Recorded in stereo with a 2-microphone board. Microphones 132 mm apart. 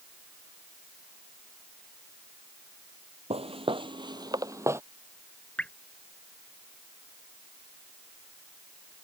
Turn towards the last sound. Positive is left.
turn(degrees=10)  # may be behind; listen again after turning